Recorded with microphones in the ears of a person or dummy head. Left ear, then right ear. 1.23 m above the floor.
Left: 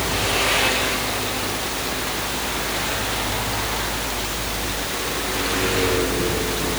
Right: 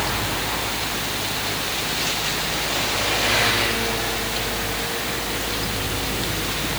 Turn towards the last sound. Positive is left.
turn(degrees=70)  # may be behind; listen again after turning